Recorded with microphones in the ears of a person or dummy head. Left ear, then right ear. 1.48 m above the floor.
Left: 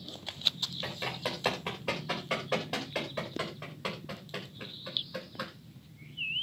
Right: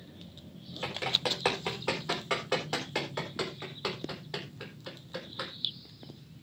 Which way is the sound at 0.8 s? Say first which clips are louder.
Right 5 dB; 40° right (ahead or behind).